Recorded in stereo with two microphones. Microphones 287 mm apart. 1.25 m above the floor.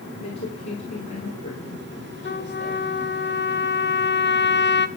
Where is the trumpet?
40° left (ahead or behind), 0.9 m.